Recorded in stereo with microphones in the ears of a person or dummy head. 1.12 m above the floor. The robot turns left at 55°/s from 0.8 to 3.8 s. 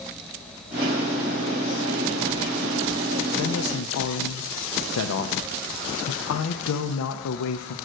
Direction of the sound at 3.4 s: 75° left (ahead or behind).